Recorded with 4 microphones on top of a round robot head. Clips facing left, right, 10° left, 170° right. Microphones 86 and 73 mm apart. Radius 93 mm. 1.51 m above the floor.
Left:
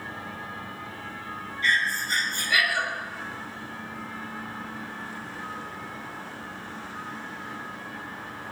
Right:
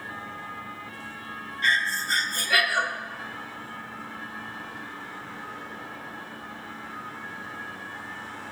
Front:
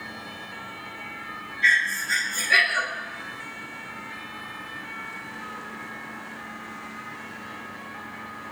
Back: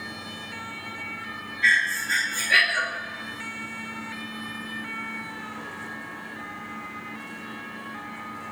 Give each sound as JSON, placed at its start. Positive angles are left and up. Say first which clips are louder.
{"t": 1.6, "sound": "breathing", "louder": "even, even", "azimuth_deg": -75, "distance_m": 2.5}